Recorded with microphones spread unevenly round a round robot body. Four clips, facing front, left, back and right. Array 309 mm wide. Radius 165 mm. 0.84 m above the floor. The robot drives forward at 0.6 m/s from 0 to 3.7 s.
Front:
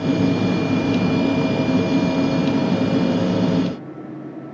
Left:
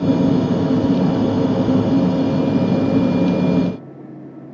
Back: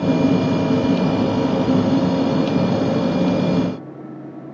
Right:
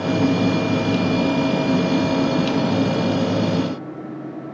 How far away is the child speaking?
No child speaking in this recording.